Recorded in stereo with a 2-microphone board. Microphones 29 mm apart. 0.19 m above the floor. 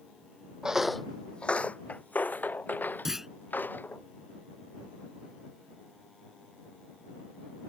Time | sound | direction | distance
0.6 | footsteps | 20° right (ahead or behind) | ?
3.0 | a clunk | 10° right (ahead or behind) | ?